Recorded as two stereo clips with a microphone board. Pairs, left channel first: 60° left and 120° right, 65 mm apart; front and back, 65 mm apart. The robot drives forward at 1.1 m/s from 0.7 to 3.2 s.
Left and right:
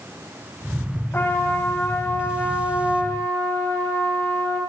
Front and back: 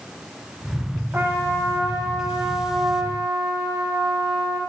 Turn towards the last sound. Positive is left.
turn(degrees=140)